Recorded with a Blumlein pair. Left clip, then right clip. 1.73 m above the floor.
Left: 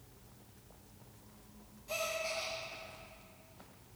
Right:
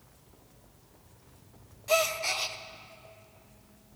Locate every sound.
1.9 s a gasp: 55° right, 0.5 m